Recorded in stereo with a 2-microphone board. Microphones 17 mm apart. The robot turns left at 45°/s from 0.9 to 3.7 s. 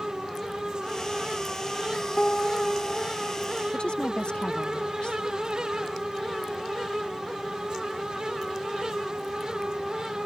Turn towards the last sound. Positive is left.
turn(degrees=65)  # may be behind; listen again after turning